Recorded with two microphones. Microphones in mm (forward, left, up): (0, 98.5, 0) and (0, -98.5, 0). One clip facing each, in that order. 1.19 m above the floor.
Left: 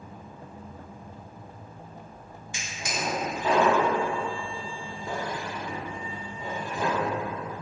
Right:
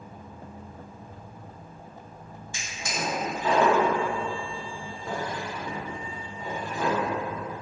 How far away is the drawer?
About 1.2 m.